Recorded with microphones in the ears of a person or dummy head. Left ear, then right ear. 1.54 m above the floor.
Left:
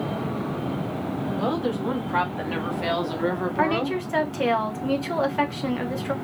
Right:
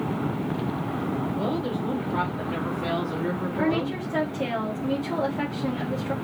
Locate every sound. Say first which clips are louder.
1.4 s a woman speaking: left 2 dB; 65° left (ahead or behind), 1.9 m
3.6 s a woman speaking: left 3 dB; 75° left (ahead or behind), 1.3 m